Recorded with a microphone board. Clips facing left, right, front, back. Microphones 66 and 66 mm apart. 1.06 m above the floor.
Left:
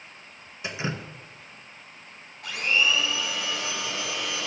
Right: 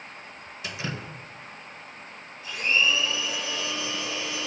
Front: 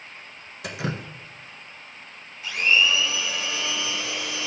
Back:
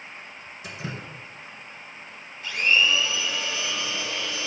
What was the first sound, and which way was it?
Dripping, 20° left.